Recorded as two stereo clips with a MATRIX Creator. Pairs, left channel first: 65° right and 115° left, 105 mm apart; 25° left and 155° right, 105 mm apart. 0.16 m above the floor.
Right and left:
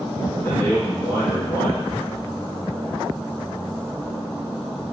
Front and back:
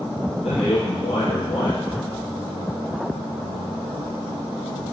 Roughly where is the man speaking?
Ahead.